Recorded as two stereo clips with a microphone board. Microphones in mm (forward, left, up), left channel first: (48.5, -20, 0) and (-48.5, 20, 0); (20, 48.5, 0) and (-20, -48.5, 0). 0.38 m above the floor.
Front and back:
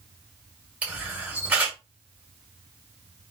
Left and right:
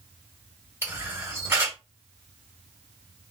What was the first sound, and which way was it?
A camera shutter, 140° right.